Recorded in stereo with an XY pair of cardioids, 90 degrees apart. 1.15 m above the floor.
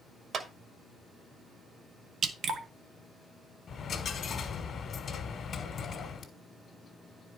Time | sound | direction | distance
0.3 | a clap | 55° right | 1.7 m
2.2 | dripping | 65° right | 1.1 m
3.7 | a dropped coin | 60° left | 1.9 m